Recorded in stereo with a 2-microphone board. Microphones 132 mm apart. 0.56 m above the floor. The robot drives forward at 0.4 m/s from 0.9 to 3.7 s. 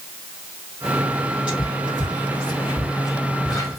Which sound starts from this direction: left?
Whispering, at 1.5 s.